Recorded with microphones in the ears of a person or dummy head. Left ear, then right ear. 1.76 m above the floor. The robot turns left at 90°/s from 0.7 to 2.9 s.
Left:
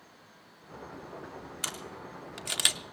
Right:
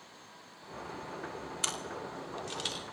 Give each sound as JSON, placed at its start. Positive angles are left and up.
{"t": 1.6, "sound": "a camera shutter", "side_deg": 0, "distance_m": 0.8}